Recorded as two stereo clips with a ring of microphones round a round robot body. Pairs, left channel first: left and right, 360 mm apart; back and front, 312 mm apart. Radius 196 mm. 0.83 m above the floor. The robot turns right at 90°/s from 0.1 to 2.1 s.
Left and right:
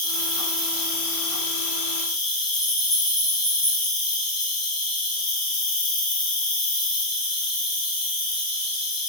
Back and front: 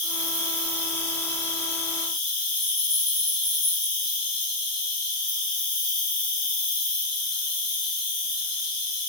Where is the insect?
25° right, 0.8 m; by 9.1 s 155° left, 0.8 m.